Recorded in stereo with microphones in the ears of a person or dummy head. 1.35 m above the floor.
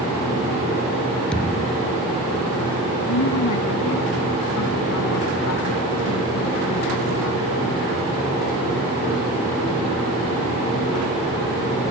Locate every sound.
1.3 s a thud: 5° left (ahead or behind)
3.1 s a woman speaking: 85° left